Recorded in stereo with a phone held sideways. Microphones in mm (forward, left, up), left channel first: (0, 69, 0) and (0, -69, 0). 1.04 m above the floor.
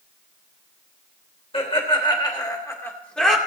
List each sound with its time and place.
1.5 s laughter: 45° left (ahead or behind), 3 m; by 3.4 s centre (ahead or behind), 2.5 m